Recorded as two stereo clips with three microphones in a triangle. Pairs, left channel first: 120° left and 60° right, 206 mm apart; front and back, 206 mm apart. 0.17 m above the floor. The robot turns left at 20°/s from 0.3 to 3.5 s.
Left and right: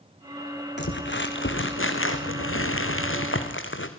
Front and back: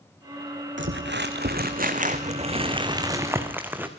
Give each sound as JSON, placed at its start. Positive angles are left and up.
{"t": 0.8, "sound": "crumpling", "azimuth_deg": 155, "distance_m": 2.5}